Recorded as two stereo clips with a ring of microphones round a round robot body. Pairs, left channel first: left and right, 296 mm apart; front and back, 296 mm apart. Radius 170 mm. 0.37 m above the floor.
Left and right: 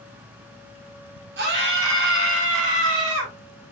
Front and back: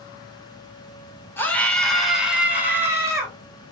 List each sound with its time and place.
1.4 s a scream: 80° right, 1.7 m; by 3.3 s 105° right, 2.5 m